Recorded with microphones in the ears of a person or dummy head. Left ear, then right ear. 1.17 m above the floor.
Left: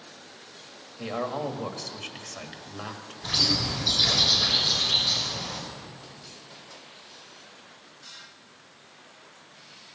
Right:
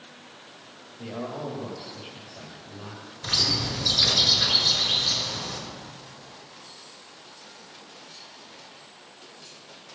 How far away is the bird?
About 5 m.